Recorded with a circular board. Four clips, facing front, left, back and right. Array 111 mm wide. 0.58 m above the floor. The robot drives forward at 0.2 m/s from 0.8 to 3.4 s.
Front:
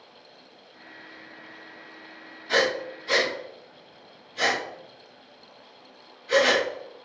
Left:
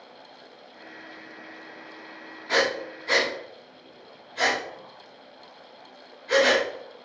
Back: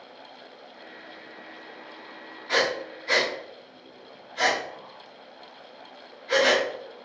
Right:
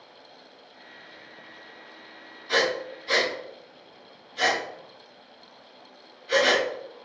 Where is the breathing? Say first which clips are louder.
Even, front 2 dB; 120° left, 1.4 m; by 6.7 s 130° left, 1.5 m.